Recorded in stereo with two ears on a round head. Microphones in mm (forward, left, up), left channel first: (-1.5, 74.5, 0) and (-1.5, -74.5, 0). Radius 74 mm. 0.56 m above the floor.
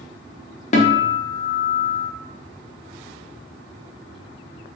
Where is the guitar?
45° left (ahead or behind), 0.6 m.